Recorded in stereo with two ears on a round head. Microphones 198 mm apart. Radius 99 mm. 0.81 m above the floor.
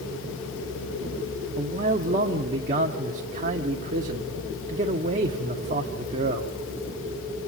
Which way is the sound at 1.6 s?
35° right (ahead or behind).